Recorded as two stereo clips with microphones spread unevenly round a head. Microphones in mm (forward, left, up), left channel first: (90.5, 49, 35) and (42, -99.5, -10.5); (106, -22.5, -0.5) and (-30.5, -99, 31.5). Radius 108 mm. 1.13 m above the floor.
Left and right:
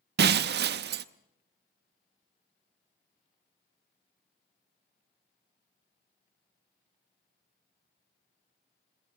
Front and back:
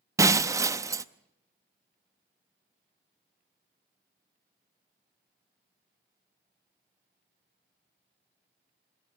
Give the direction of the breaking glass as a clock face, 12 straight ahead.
3 o'clock.